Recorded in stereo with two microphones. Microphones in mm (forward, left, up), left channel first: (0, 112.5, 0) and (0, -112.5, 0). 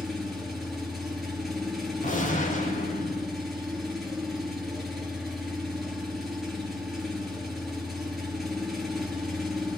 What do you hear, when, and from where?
0.0 s an engine running: centre (ahead or behind), 5 m
2.0 s a gunshot: 40° left (ahead or behind), 5.5 m